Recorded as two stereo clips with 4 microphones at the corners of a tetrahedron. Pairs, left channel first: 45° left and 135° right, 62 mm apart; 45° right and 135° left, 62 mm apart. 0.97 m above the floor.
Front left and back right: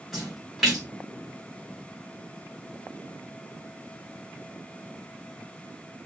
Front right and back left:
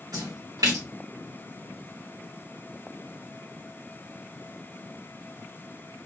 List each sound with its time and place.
0.1 s a splash: 140° left, 1.8 m